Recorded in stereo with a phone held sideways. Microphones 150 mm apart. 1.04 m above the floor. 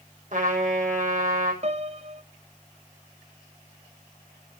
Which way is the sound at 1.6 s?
45° right (ahead or behind).